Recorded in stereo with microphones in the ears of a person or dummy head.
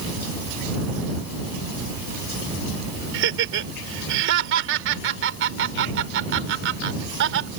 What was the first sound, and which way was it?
Laughter, 70° right (ahead or behind).